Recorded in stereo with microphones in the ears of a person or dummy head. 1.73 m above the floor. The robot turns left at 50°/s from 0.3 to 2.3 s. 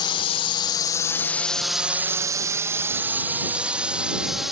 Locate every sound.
0.0 s a drone: 25° left (ahead or behind); by 4.5 s 5° right (ahead or behind)